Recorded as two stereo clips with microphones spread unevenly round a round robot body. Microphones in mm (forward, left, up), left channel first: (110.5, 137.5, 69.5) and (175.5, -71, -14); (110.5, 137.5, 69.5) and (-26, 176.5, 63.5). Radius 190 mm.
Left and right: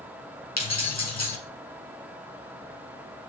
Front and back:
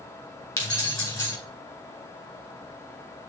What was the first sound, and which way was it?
Keys jangling, 55° left.